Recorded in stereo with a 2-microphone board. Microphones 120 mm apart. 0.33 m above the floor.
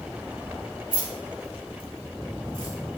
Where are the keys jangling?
40° left (ahead or behind), 1.3 m.